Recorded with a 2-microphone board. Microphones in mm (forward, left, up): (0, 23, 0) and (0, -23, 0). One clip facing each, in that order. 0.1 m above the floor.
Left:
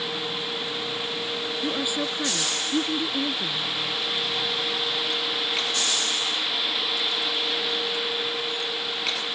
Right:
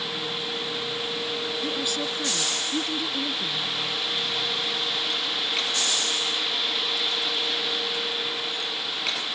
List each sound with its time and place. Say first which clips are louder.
1.6 s a woman speaking: left 1 dB; 15° left (ahead or behind)